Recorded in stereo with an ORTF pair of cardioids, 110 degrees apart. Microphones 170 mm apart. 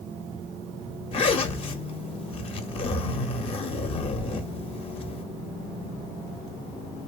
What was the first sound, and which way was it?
A zipper, 35° left.